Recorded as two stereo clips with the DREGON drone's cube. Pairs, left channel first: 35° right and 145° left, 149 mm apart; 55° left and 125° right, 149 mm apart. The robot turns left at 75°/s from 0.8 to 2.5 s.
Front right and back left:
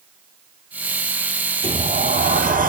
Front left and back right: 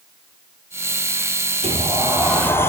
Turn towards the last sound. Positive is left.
turn(degrees=130)